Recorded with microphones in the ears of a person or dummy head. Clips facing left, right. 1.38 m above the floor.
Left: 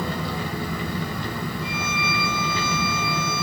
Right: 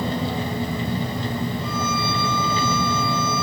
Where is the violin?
40° right (ahead or behind), 5 m.